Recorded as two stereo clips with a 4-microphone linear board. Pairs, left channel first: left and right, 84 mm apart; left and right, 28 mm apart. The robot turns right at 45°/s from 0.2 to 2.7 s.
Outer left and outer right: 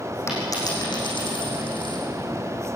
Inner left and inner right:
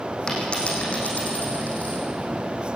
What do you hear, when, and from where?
0.3 s a dropped coin: 30° left (ahead or behind), 6 m; by 2.0 s 70° left (ahead or behind), 6 m